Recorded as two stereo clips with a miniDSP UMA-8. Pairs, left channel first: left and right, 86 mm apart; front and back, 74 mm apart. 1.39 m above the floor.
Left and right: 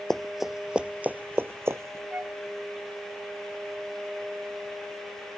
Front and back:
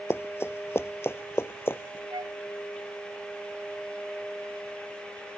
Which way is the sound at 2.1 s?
160° right.